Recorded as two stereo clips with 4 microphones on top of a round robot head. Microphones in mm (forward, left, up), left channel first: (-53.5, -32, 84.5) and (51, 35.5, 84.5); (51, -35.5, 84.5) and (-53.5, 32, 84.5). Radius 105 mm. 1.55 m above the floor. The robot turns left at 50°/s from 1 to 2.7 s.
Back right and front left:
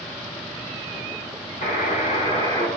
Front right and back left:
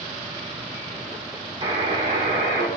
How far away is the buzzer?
About 2.5 m.